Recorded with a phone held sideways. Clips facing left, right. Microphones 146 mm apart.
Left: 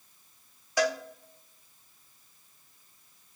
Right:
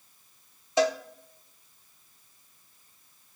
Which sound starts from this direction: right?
A cowbell, at 0.8 s.